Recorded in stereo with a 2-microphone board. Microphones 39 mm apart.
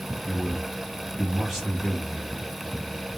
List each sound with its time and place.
0.2 s a man speaking: 5° left (ahead or behind), 1.3 m